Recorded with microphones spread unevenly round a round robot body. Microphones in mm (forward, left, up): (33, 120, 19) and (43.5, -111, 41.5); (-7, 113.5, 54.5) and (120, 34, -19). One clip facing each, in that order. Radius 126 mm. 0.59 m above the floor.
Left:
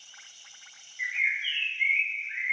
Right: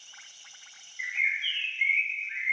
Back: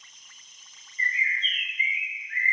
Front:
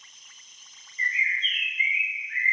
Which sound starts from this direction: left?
A bird, at 1.0 s.